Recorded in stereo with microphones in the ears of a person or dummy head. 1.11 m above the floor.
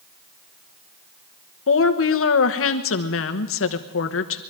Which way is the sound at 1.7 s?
65° left (ahead or behind).